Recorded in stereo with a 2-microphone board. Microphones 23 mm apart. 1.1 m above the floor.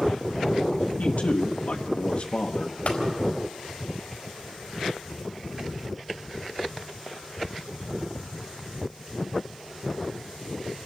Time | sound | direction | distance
1.0 | a man speaking | 70° left (ahead or behind) | 1.2 m
2.9 | tapping | 50° left (ahead or behind) | 4 m